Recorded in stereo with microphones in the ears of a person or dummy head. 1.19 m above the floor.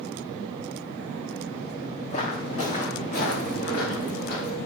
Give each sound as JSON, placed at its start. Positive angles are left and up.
{"t": 2.1, "sound": "footsteps", "side_deg": 40, "distance_m": 3.0}